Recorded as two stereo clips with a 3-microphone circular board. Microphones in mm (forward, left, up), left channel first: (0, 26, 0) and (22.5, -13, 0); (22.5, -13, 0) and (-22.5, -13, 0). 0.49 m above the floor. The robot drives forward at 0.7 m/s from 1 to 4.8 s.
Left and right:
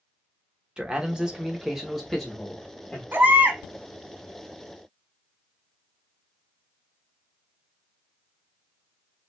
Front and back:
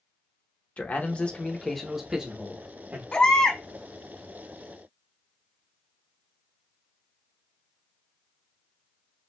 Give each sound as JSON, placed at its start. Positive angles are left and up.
{"t": 0.8, "sound": "a man speaking", "azimuth_deg": -5, "distance_m": 1.0}
{"t": 3.1, "sound": "a baby crying", "azimuth_deg": -55, "distance_m": 1.2}